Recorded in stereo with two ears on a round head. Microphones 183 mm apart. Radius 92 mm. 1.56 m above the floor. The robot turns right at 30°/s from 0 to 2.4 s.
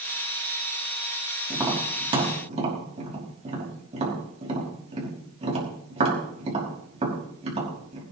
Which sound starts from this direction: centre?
Tapping, at 1.5 s.